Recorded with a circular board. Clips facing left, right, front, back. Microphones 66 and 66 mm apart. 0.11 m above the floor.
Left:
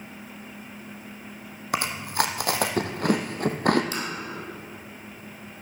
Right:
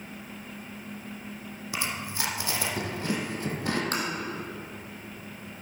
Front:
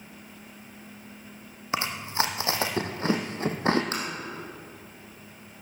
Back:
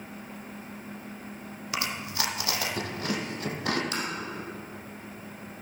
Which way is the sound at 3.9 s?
50° right.